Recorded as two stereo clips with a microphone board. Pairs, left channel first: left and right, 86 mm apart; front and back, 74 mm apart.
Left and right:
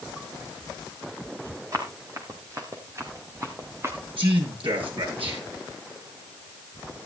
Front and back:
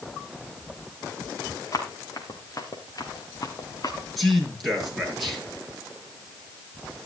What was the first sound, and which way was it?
Running footsteps, 40° right.